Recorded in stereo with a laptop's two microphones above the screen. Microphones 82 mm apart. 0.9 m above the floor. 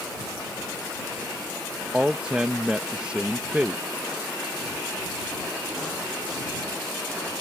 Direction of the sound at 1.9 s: 10° right (ahead or behind).